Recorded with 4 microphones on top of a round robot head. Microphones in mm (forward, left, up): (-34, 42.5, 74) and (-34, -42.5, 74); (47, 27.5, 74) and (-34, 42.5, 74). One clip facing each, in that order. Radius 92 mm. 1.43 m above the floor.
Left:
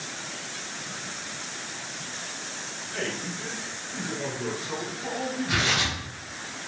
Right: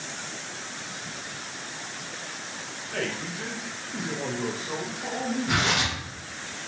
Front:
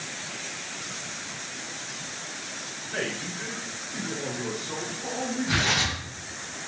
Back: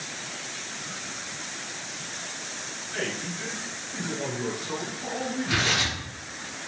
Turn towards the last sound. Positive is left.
turn(degrees=-90)